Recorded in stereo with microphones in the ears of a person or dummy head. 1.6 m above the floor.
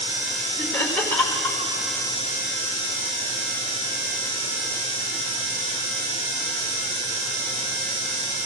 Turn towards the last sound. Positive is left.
turn(degrees=5)  # may be behind; listen again after turning